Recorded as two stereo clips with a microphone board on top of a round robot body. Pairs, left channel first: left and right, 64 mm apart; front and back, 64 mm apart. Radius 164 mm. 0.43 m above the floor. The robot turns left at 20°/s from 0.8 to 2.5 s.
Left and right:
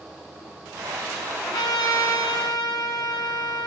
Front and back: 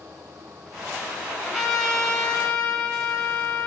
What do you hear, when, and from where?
1.4 s a trumpet: 85° left, 1.3 m; by 3.7 s 65° left, 1.3 m